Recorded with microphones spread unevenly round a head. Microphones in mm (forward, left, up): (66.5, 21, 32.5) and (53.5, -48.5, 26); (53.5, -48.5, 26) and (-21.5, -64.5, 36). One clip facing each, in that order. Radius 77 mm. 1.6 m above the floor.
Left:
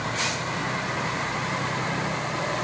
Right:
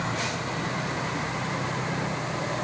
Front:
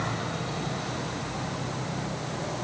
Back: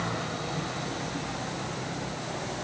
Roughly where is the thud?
I don't hear a thud.